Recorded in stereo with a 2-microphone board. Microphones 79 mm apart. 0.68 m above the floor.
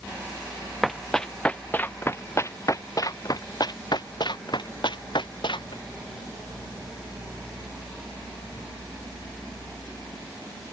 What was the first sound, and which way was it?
Running footsteps, centre (ahead or behind).